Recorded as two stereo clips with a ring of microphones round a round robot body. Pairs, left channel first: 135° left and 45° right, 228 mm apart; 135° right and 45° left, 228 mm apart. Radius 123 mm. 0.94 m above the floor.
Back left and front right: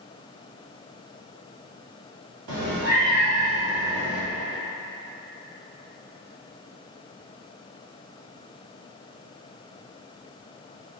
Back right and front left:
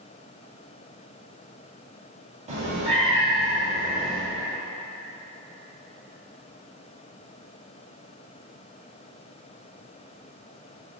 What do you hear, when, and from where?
2.5 s a cat meowing: 15° right, 1.7 m; by 4.2 s 55° right, 0.7 m